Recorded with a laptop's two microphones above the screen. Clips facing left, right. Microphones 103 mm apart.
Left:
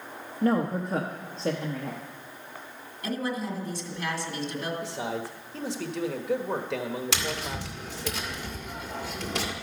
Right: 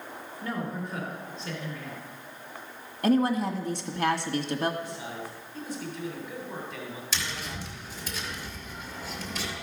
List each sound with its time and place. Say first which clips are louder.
0.4 s a woman speaking: left 9 dB; 65° left (ahead or behind), 1.1 m
3.0 s a woman speaking: right 7 dB; 60° right (ahead or behind), 1.7 m
4.8 s a man speaking: left 5 dB; 80° left, 1.2 m
7.1 s tapping: left 4 dB; 75° left (ahead or behind), 1.9 m